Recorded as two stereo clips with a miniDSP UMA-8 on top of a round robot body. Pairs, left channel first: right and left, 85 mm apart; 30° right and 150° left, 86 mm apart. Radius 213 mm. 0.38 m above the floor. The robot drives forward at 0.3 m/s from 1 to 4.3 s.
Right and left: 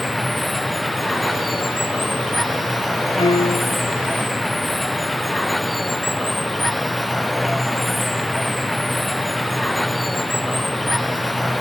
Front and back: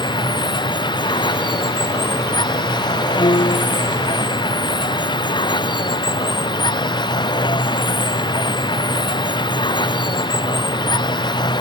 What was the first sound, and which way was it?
Running water, straight ahead.